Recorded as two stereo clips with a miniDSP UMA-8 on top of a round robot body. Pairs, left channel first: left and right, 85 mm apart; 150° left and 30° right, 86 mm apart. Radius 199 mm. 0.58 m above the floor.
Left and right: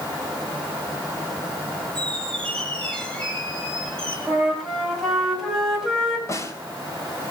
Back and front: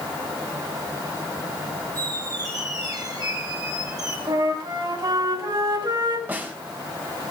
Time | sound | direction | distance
1.9 | a squeak | 10° left | 4.5 m
4.3 | a flute | straight ahead | 6 m
6.3 | a snare drum | 35° left | 3 m